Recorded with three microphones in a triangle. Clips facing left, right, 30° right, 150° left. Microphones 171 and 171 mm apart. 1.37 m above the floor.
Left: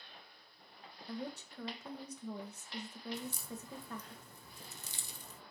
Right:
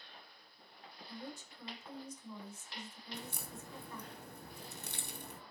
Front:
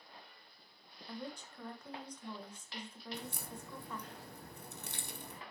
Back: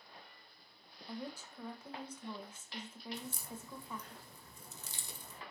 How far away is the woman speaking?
About 1.6 m.